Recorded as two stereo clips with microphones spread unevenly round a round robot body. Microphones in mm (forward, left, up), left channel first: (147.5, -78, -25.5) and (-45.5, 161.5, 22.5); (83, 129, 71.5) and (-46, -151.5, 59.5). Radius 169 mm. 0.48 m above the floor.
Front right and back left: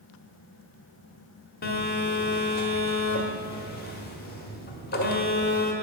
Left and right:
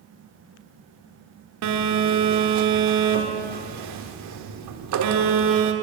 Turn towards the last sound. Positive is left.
turn(degrees=-105)